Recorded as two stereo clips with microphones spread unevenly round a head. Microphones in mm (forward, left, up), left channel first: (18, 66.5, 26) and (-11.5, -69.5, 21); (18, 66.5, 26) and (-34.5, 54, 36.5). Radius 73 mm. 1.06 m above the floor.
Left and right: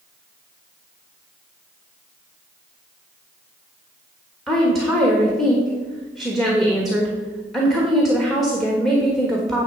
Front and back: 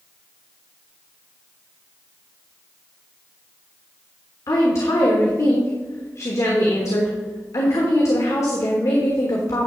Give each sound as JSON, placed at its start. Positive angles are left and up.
{"t": 4.5, "sound": "a woman speaking", "azimuth_deg": -10, "distance_m": 1.3}